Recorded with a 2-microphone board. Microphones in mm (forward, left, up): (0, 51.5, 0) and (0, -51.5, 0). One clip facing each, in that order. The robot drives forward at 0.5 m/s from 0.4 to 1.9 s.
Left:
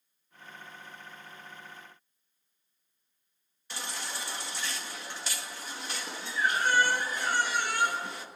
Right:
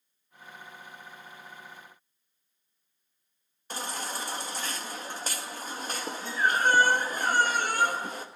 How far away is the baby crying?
About 1.8 m.